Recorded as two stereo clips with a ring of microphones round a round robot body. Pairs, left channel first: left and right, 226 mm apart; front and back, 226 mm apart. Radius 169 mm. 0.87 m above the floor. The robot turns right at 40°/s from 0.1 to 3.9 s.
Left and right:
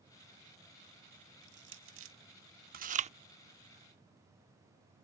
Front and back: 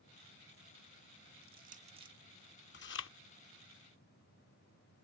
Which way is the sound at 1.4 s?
135° right.